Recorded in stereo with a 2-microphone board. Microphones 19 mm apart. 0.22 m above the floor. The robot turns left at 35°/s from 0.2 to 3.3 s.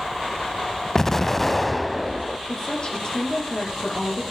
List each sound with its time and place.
0.9 s an explosion: 35° left, 0.7 m; by 2.4 s 15° right, 0.7 m
2.5 s a woman speaking: 25° left (ahead or behind), 6 m; by 4.2 s 55° left (ahead or behind), 6 m